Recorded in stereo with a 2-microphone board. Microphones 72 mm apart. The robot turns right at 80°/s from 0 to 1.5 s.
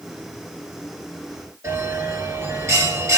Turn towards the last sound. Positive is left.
turn(degrees=-45)  # may be behind; listen again after turning